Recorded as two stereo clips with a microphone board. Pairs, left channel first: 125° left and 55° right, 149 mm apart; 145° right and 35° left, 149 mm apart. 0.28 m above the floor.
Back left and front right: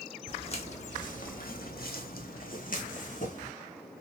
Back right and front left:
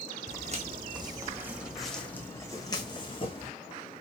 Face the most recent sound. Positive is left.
turn(degrees=160)